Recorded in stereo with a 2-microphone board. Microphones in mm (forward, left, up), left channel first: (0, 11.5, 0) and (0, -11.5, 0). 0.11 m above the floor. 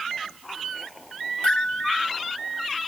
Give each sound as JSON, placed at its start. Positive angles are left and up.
{"t": 1.4, "sound": "a bell", "side_deg": 45}